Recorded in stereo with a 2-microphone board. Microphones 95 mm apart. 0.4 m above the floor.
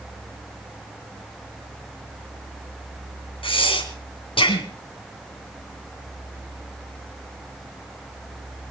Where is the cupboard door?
No cupboard door in this recording.